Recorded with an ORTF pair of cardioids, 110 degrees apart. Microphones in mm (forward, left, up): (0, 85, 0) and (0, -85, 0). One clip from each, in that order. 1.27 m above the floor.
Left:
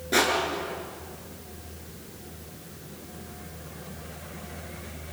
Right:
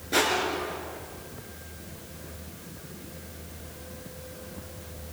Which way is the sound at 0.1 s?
25° left.